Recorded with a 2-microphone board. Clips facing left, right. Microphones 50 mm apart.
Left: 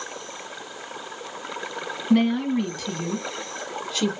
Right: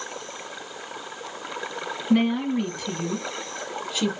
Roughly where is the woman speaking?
Centre.